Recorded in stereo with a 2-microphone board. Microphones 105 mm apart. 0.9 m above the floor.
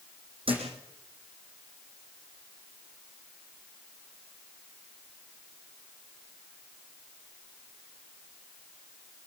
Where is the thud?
60° right (ahead or behind), 8 m.